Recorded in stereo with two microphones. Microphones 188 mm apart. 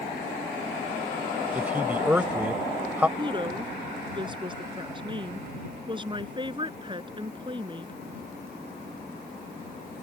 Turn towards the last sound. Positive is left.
turn(degrees=-25)  # may be behind; listen again after turning